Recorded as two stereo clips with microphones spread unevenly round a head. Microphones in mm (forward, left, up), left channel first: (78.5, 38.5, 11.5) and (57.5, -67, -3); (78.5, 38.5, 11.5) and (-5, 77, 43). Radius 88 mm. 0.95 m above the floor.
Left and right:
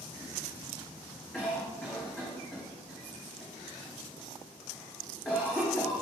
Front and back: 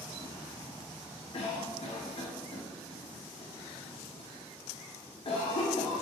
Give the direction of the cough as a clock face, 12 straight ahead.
12 o'clock.